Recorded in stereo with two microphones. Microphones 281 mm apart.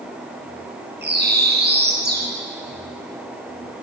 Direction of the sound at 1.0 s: 35° right (ahead or behind).